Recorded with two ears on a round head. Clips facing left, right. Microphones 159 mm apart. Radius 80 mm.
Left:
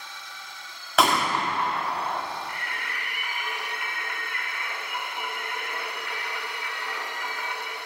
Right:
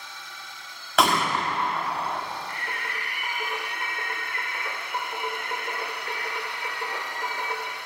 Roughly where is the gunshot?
Centre.